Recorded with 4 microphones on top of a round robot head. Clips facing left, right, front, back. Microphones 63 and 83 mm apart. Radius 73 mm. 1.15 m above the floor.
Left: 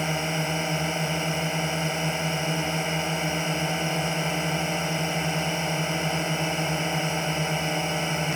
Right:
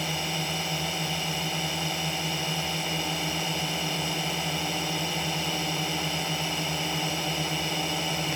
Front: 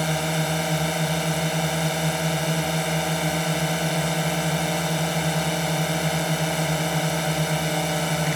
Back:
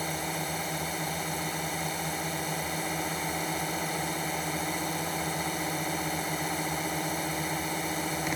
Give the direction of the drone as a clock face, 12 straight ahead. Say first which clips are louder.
Left 4 dB, front 8 dB; 11 o'clock.